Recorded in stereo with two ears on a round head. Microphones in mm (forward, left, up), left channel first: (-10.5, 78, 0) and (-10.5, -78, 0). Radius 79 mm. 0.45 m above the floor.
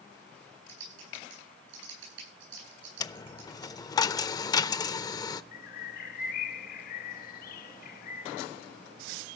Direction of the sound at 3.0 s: 20° left (ahead or behind).